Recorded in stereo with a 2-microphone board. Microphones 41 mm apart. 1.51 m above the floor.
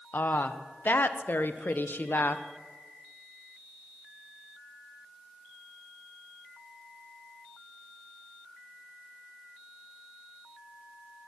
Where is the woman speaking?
50° left (ahead or behind), 0.8 m.